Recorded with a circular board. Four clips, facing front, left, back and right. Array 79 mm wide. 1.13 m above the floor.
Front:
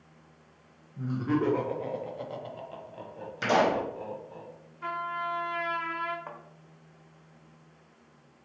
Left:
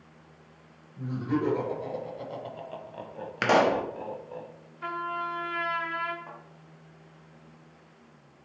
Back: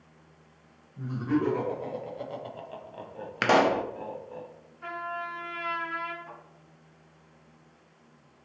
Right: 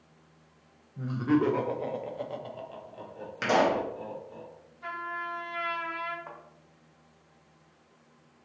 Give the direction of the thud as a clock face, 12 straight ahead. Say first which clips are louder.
Even, front 3 dB; 12 o'clock.